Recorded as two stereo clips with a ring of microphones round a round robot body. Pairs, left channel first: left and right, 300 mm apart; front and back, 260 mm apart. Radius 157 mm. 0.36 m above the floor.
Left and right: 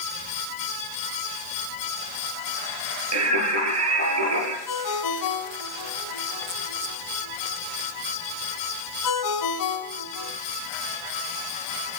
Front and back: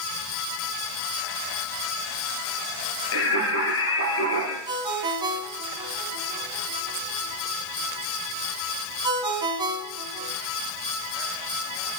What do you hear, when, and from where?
3.1 s singing: 50° right, 9.5 m
4.7 s a ringtone: 105° left, 2.5 m